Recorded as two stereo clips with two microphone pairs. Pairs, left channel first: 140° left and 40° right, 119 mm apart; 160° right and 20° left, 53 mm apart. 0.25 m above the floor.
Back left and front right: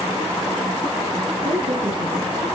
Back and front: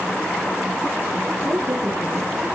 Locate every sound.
1.4 s a woman speaking: 5° right, 4.5 m